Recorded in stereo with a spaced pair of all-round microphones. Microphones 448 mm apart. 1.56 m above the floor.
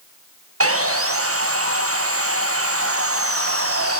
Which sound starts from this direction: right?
Sawing, at 0.6 s.